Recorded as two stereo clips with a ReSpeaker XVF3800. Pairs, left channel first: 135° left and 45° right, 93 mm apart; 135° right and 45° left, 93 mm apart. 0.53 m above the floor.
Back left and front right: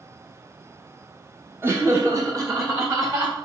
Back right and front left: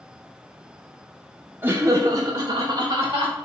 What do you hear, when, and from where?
1.6 s laughter: 5° right, 0.8 m; by 3.4 s 5° left, 2.5 m